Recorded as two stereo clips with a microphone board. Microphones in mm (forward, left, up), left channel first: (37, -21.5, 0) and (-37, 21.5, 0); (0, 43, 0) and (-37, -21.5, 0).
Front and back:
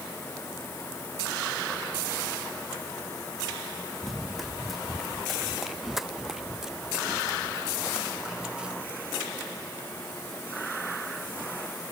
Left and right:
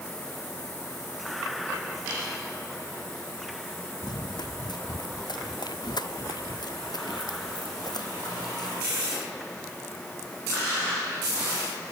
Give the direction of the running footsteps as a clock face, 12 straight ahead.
10 o'clock.